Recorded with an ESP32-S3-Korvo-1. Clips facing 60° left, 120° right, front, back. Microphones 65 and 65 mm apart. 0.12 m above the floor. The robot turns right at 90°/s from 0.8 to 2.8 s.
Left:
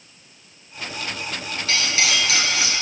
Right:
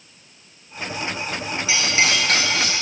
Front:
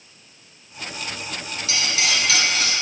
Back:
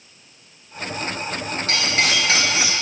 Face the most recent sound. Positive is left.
turn(degrees=-95)